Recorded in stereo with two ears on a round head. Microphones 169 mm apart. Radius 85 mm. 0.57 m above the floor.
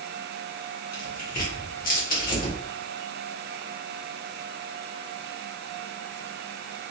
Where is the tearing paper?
50° left (ahead or behind), 1.7 m.